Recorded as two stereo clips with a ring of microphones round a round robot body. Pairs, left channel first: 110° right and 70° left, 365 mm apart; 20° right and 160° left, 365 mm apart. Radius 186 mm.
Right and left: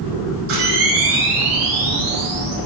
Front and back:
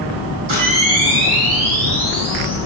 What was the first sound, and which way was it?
A camera shutter, 125° left.